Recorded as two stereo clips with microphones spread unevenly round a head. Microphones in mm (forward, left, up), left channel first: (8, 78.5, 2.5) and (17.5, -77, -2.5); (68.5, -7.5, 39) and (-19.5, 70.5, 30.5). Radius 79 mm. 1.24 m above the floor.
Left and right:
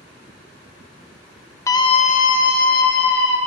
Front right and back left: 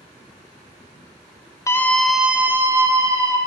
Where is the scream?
20° left, 0.8 m; by 3.4 s 75° left, 2.0 m.